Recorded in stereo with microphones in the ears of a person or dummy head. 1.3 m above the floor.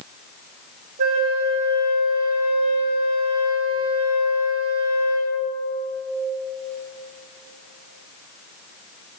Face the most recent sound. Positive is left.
turn(degrees=-45)  # may be behind; listen again after turning